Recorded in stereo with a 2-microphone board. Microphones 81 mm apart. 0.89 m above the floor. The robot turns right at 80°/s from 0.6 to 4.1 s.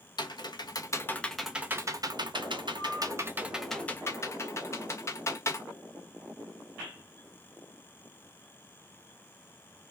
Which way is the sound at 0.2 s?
55° left (ahead or behind).